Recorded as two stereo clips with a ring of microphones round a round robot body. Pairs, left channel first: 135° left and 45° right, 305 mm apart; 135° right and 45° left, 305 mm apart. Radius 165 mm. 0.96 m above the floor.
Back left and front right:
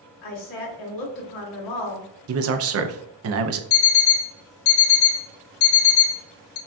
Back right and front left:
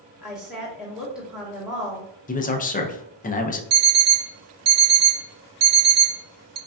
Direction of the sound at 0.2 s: 130° left.